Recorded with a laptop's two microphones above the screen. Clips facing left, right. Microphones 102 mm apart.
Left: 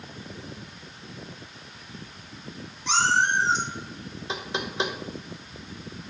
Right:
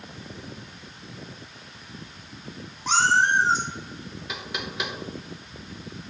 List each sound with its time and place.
2.9 s a cat meowing: 45° right (ahead or behind), 2 m
4.3 s knocking: 30° left (ahead or behind), 0.8 m